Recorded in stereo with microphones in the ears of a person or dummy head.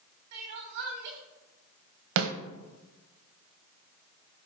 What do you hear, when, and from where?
0.3 s crying: 55° right (ahead or behind), 2.5 m
2.2 s a snare drum: 75° right (ahead or behind), 1.3 m